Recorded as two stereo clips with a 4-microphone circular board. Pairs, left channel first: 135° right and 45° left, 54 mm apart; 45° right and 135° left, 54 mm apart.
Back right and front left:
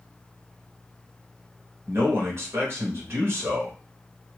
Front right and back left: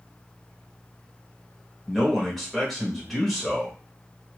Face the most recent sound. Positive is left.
turn(degrees=40)